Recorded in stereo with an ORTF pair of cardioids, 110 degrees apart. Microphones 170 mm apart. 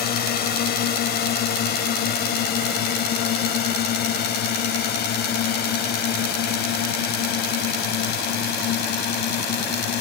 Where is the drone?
65° left; by 10.0 s 75° left.